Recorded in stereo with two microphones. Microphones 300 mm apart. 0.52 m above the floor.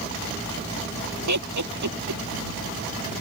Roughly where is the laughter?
Right.